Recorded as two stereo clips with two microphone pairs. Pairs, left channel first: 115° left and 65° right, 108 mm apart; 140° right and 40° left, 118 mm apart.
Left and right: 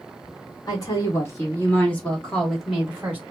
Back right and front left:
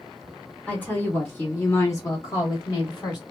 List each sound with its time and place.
0.7 s a woman speaking: 145° left, 1.6 m; by 3.2 s 130° right, 1.4 m